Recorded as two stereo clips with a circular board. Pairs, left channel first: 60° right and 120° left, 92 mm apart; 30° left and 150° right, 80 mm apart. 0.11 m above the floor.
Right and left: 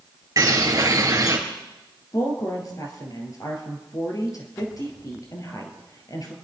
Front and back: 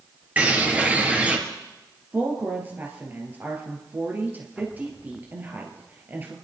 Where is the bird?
145° left, 2.5 m.